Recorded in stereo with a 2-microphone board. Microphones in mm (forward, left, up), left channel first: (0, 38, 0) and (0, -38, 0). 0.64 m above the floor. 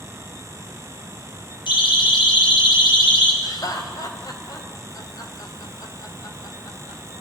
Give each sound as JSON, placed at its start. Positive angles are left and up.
{"t": 1.7, "sound": "a siren", "side_deg": 80, "distance_m": 5.5}
{"t": 3.4, "sound": "laughter", "side_deg": 55, "distance_m": 2.5}